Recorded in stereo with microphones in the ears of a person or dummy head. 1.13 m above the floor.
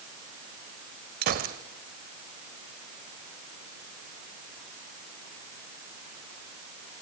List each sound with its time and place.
1.2 s a gunshot: 50° right (ahead or behind), 1.8 m